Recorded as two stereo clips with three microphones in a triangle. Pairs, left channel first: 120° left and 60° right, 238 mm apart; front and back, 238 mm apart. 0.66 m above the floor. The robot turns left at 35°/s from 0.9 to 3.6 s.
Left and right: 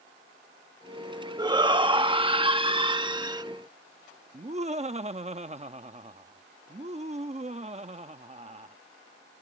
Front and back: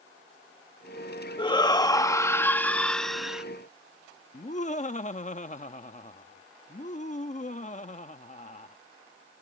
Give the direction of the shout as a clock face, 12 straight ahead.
1 o'clock.